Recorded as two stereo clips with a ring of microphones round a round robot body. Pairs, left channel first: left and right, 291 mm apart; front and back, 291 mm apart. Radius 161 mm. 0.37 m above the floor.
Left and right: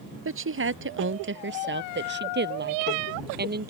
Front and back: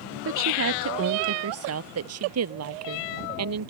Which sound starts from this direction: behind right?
A woman speaking, at 0.2 s.